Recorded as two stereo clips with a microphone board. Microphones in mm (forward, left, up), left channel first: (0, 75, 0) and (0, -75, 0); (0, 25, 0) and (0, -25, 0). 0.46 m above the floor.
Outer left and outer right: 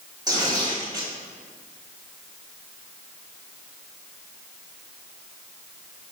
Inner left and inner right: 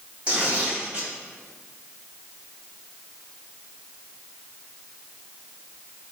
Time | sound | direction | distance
0.3 | tearing paper | 25° right (ahead or behind) | 3 m